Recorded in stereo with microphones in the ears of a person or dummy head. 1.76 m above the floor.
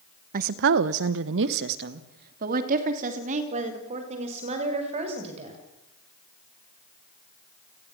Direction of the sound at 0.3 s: 40° right (ahead or behind).